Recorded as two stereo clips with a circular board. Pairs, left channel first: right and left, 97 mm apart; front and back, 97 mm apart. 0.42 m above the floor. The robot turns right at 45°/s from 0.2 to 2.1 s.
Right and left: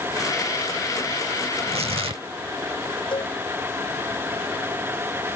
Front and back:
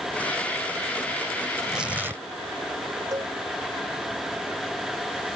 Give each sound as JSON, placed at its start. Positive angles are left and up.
{"t": 1.6, "sound": "tearing paper", "azimuth_deg": 90}
{"t": 3.1, "sound": "a cowbell", "azimuth_deg": -125}